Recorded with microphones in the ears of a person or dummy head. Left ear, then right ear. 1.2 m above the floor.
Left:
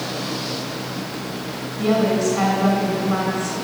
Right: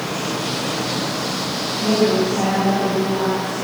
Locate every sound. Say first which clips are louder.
1.8 s a woman speaking: right 1 dB; 45° left (ahead or behind), 6 m